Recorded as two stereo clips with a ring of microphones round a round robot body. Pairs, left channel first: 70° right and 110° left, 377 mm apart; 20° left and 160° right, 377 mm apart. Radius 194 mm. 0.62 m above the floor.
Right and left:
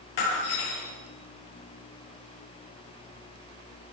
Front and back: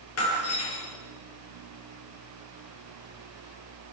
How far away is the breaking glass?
About 6.5 m.